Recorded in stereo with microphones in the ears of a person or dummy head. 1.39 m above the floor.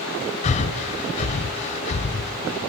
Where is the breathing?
35° left (ahead or behind), 0.7 m.